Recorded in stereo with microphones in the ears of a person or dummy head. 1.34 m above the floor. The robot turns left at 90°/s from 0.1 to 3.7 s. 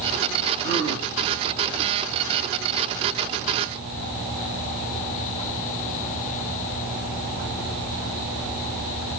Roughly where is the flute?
No flute in this recording.